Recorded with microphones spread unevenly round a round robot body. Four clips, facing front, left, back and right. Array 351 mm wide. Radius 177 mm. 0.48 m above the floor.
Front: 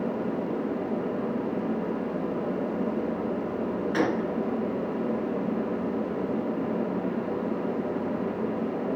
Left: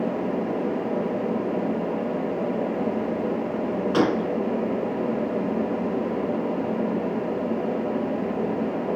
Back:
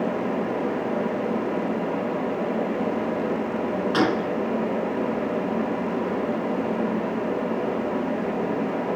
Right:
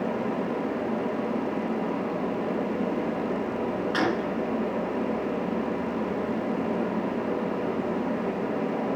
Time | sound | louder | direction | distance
3.9 | a gunshot | left 6 dB, back 3 dB | 120° left | 3 m